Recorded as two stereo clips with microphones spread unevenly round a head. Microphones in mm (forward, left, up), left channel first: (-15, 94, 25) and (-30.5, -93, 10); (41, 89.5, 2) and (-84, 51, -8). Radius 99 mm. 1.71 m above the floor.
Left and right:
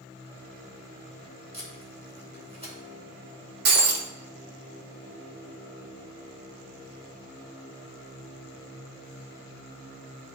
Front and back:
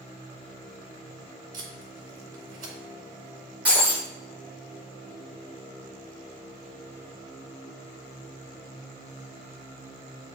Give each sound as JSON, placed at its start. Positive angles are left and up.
{"t": 1.5, "sound": "tape being pulled", "azimuth_deg": -150, "distance_m": 3.5}
{"t": 3.6, "sound": "breaking glass", "azimuth_deg": -80, "distance_m": 1.1}